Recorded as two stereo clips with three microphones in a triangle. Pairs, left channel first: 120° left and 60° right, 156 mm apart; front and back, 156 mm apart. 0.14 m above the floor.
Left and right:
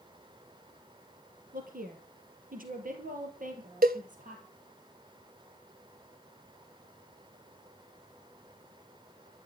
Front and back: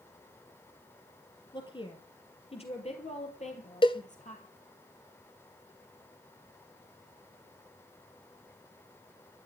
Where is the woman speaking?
55° right, 3 m; by 4.4 s 30° right, 4 m.